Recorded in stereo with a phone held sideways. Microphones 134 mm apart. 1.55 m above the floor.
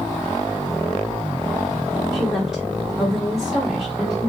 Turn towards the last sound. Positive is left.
turn(degrees=0)  # may be behind; listen again after turning